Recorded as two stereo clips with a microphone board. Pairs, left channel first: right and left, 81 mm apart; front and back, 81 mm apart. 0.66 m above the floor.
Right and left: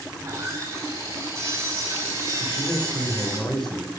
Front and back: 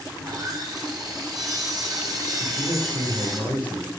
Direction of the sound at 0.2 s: 145° left.